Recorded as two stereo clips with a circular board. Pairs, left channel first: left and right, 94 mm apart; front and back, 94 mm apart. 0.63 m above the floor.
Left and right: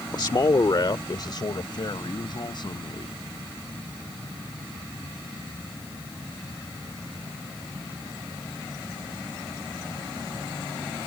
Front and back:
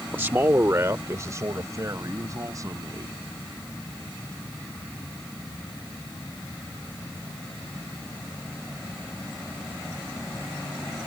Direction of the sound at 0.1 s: 115° left.